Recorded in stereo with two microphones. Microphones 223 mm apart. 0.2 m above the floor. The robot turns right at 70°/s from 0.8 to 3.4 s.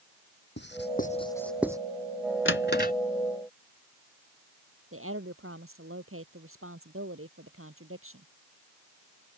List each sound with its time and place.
0.6 s writing: 50° left (ahead or behind); by 1.8 s 15° right (ahead or behind)
2.5 s a drawer: 65° left (ahead or behind); by 2.9 s 40° left (ahead or behind)
4.9 s a woman speaking: 75° right (ahead or behind)